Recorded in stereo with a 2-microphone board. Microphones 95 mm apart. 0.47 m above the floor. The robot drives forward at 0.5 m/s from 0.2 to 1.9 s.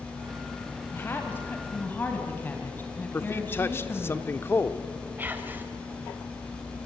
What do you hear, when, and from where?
0.9 s a woman speaking: 25° left (ahead or behind), 2.5 m; by 4.1 s 20° left (ahead or behind), 3 m
3.1 s a man speaking: 25° left (ahead or behind), 0.8 m
5.2 s whispering: 20° right (ahead or behind), 2.5 m